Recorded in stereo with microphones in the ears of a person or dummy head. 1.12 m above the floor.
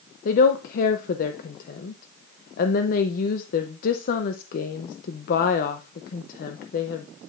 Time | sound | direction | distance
0.2 | a woman speaking | 50° left (ahead or behind) | 0.6 m